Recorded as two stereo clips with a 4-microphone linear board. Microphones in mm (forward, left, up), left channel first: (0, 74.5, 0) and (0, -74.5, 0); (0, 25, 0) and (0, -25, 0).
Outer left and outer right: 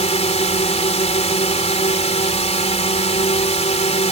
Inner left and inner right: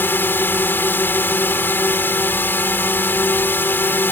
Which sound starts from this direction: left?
A drone, at 0.0 s.